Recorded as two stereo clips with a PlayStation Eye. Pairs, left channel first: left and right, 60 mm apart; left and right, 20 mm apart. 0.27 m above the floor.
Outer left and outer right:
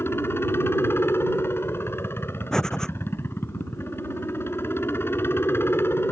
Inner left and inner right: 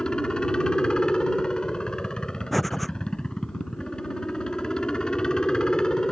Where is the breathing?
10° left (ahead or behind).